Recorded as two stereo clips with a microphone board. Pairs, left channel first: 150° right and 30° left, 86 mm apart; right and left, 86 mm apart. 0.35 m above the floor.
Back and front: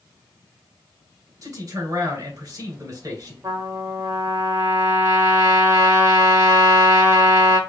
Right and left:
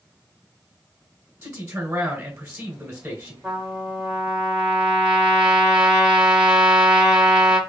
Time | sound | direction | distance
1.4 | a man speaking | 30° left | 1.8 m
3.4 | a trumpet | 25° left | 1.4 m